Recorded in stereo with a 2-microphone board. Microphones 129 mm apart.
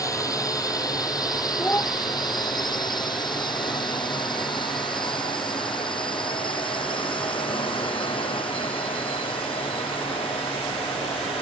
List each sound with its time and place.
0.0 s a drone: 25° left (ahead or behind); by 11.4 s 45° left (ahead or behind)
1.6 s a child speaking: 15° left (ahead or behind)